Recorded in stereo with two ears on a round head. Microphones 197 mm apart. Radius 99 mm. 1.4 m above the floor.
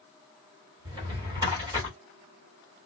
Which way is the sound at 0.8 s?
20° right (ahead or behind).